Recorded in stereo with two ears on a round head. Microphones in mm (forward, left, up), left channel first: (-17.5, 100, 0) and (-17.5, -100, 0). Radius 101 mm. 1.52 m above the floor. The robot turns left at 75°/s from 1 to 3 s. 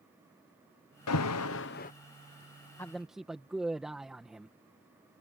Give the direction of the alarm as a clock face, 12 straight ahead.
9 o'clock.